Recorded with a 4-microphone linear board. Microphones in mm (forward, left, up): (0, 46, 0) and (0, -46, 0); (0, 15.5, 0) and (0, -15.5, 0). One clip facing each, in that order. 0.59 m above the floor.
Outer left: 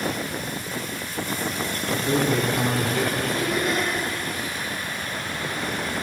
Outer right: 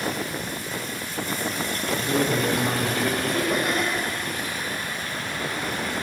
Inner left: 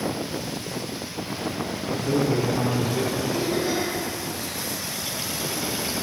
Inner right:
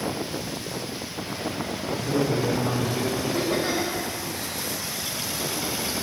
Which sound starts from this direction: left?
A man speaking, at 1.9 s.